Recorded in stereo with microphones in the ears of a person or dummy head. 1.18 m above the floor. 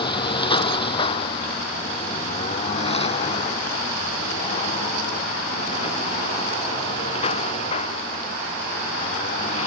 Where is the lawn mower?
25° left (ahead or behind); by 9.7 s 40° left (ahead or behind).